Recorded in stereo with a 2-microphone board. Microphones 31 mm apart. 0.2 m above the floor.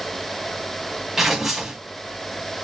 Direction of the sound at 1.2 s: 15° right (ahead or behind).